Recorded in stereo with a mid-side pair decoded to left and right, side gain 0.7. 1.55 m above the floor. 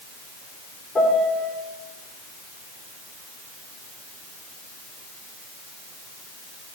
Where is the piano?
20° left, 3.5 m.